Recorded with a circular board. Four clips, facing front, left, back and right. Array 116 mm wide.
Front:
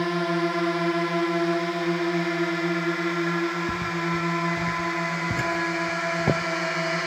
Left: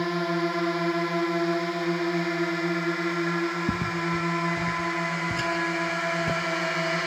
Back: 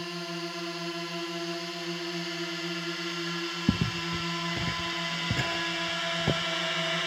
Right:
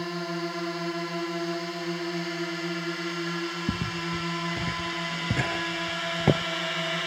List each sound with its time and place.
0.0 s a drone: 30° left; by 7.1 s 40° left
3.7 s footsteps: 170° left; by 6.5 s 60° right